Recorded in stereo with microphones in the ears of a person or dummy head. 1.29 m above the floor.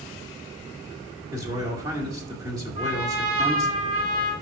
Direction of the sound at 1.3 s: 20° right (ahead or behind).